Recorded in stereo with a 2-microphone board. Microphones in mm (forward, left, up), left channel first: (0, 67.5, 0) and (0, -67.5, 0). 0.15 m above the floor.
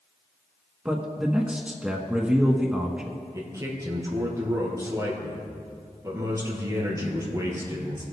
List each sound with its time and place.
0.8 s a man speaking: 10° right (ahead or behind), 1.2 m
3.3 s a man speaking: 25° right (ahead or behind), 3 m